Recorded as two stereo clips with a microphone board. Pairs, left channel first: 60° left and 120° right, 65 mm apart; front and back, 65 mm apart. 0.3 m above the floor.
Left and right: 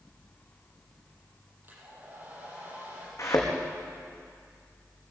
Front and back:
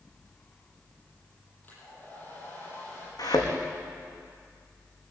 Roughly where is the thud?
Ahead.